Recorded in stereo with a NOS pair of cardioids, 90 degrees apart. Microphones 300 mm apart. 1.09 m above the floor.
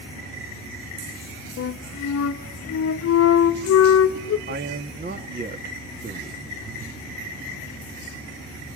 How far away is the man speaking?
About 2 m.